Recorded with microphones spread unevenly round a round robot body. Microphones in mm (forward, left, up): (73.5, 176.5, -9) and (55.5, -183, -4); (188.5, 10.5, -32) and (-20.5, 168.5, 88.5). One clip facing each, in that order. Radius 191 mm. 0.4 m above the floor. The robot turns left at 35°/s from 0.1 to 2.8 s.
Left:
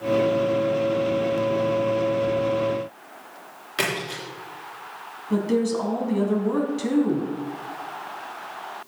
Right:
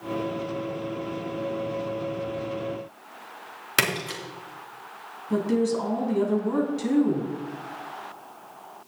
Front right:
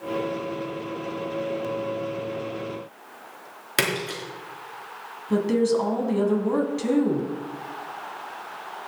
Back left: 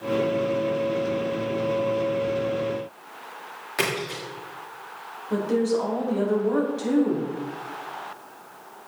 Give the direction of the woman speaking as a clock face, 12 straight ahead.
12 o'clock.